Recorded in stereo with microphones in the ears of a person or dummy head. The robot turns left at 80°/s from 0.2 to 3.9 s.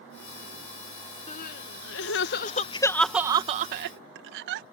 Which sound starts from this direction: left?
Crying, at 1.3 s.